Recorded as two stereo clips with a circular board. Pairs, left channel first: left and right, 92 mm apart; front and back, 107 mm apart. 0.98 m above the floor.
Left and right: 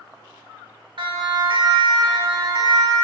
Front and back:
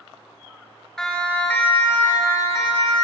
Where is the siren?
85° right, 2.5 m; by 3.0 s 50° right, 3.5 m.